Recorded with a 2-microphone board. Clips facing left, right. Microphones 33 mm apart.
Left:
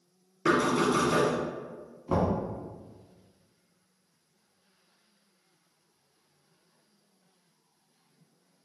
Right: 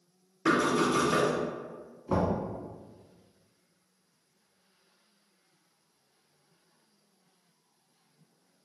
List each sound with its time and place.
0.5 s knocking: 25° left (ahead or behind), 1.6 m
2.1 s knocking: 25° left (ahead or behind), 1.1 m